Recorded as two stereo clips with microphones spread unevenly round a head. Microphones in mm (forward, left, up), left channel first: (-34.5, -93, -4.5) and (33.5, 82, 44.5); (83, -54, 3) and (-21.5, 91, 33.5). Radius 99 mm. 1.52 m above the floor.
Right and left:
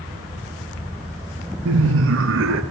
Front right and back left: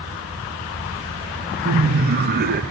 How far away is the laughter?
About 0.6 m.